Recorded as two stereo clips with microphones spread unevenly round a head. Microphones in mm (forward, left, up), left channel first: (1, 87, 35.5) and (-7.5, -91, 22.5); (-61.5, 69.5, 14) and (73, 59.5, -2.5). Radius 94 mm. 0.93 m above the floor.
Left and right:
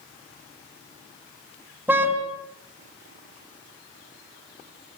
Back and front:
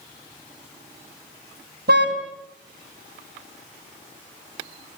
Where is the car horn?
10° right, 3.5 m.